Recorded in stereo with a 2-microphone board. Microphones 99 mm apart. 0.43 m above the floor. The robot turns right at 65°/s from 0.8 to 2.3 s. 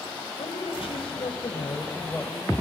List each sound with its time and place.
0.4 s a woman speaking: 75° left, 1.8 m; by 2.6 s 175° left, 1.8 m